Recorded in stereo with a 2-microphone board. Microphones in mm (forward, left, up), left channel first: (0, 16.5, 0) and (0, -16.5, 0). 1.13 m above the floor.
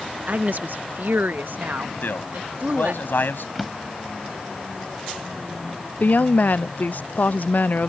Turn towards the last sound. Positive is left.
turn(degrees=60)  # may be behind; listen again after turning